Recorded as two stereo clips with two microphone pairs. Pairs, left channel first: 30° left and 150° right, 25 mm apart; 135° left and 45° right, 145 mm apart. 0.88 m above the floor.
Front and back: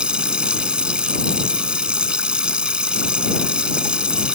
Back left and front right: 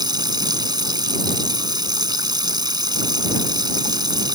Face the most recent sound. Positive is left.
turn(degrees=-105)